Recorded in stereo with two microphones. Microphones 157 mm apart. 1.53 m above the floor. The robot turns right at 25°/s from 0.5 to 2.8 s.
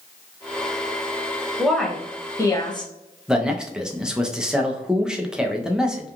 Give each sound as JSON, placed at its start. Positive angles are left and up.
{"t": 1.6, "sound": "a woman speaking", "azimuth_deg": 0, "distance_m": 0.6}
{"t": 3.3, "sound": "a man speaking", "side_deg": -5, "distance_m": 0.5}